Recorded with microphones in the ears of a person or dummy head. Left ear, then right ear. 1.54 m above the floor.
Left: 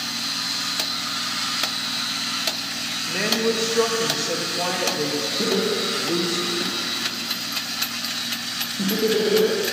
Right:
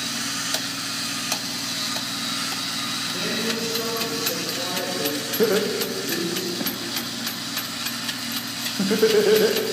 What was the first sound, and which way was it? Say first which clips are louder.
A woman speaking: left 8 dB; 60° left (ahead or behind).